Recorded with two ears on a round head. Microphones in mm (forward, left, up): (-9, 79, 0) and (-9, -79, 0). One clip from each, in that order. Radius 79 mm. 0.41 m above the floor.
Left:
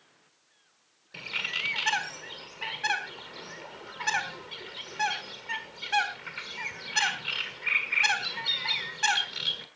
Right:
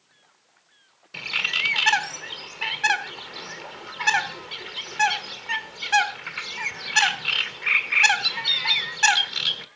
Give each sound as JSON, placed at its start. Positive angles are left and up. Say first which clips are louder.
{"t": 1.1, "sound": "a bird", "louder": "right 7 dB", "side_deg": -25, "distance_m": 1.4}